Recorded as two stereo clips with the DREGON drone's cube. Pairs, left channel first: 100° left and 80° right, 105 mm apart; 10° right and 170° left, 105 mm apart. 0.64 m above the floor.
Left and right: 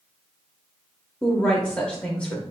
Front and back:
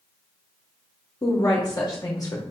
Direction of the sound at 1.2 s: 25° left.